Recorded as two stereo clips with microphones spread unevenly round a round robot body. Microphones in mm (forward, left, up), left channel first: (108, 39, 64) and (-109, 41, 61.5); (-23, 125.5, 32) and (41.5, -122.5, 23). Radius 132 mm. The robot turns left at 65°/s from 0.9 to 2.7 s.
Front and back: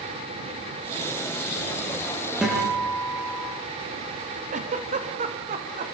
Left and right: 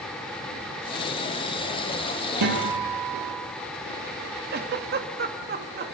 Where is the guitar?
95° right, 8.5 m; by 3.4 s 110° right, 8.5 m.